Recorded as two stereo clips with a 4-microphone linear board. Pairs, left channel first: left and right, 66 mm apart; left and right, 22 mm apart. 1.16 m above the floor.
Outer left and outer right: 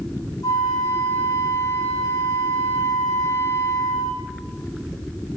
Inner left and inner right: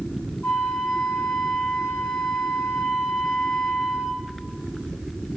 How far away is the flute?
About 3 m.